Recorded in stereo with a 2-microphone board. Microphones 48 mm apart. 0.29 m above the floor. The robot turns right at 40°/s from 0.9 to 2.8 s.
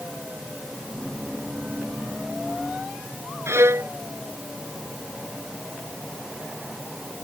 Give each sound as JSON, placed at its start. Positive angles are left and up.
{"t": 3.5, "sound": "a violin", "side_deg": -60}